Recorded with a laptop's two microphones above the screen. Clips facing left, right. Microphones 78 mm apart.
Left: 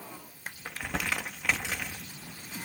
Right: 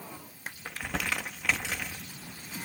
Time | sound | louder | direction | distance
0.7 | crumpling | even | 10° left (ahead or behind) | 0.9 m